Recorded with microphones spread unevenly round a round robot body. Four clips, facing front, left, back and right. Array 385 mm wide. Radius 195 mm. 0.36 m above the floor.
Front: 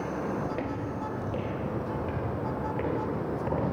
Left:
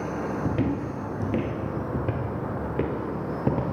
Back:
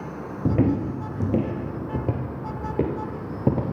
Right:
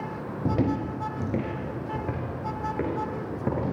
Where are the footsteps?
170° right, 0.6 m; by 3.7 s 165° left, 4 m.